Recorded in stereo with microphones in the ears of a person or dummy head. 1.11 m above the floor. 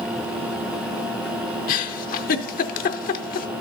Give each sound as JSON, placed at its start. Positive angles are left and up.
{"t": 1.7, "sound": "a giggle", "side_deg": 45, "distance_m": 0.6}